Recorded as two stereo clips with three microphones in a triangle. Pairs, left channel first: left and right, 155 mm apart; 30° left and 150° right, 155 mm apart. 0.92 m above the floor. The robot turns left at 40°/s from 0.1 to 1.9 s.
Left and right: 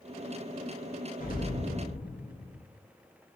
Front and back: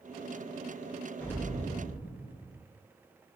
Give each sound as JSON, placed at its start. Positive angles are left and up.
{"t": 1.2, "sound": "an explosion", "azimuth_deg": 110, "distance_m": 0.9}